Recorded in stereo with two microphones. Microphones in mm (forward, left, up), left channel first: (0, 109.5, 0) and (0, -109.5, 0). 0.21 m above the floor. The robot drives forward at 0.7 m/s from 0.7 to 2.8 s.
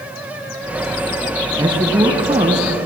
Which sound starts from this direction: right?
A man speaking, at 1.6 s.